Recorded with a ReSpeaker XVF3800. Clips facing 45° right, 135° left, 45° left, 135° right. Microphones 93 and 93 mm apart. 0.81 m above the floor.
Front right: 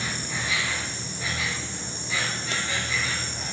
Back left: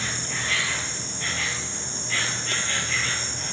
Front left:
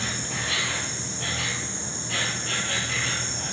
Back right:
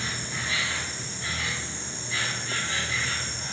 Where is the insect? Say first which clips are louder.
Even, front left 2 dB; 35° left, 3 m.